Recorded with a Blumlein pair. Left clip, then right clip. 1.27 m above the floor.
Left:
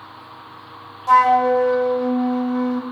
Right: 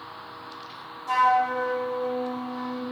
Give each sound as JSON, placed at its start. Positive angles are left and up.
{"t": 1.1, "sound": "a flute", "azimuth_deg": 60, "distance_m": 2.0}